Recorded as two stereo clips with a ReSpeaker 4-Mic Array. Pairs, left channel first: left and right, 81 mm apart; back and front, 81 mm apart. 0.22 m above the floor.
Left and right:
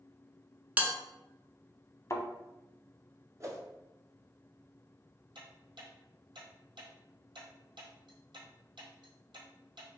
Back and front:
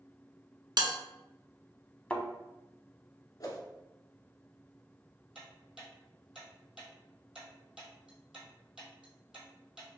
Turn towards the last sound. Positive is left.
turn(degrees=-85)